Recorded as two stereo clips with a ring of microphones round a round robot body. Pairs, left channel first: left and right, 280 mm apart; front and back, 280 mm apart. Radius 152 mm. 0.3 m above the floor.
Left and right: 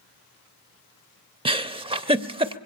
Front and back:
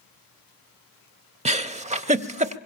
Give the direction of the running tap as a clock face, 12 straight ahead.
No running tap in this recording.